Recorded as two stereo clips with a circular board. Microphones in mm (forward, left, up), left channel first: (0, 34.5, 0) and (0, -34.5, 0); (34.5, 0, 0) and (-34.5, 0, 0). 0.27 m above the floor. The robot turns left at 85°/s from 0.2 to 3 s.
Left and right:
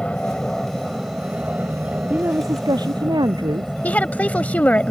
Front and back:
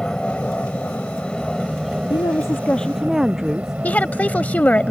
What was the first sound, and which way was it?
An aircraft, 50° left.